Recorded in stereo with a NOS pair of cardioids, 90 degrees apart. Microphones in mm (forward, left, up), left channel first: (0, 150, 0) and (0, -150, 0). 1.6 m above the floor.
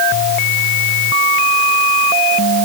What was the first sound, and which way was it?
Only background noise.